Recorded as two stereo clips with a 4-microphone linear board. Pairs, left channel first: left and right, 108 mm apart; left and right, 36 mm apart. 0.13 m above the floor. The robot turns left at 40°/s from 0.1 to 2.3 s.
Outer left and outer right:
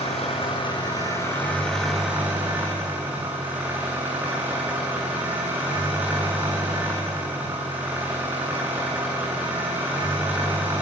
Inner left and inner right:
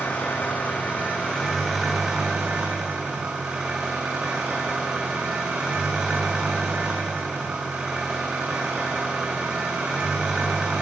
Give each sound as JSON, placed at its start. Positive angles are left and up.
{"t": 0.0, "sound": "an engine running", "azimuth_deg": 70, "distance_m": 9.0}